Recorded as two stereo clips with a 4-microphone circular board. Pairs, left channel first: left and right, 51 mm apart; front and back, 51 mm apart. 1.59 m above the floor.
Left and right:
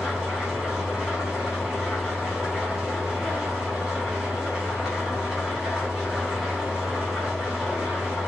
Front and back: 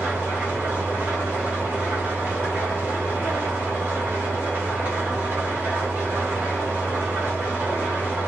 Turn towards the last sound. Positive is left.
turn(degrees=-165)